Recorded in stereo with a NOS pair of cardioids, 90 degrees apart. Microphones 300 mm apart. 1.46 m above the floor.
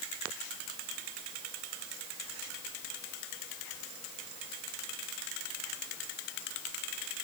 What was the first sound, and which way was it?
Only background noise.